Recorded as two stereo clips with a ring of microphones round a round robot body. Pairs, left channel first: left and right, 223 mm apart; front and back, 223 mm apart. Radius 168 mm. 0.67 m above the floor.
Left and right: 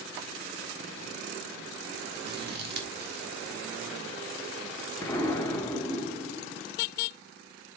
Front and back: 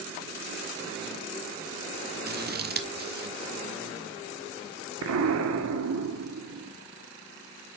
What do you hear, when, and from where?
2.3 s scissors: 135° right, 1.4 m
5.0 s an explosion: 170° left, 1.1 m